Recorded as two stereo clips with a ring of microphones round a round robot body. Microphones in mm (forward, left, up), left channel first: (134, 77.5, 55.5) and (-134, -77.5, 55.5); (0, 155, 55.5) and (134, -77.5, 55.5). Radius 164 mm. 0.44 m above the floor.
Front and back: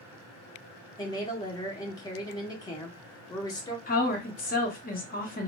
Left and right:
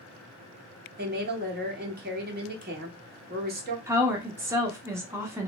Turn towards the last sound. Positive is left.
turn(degrees=10)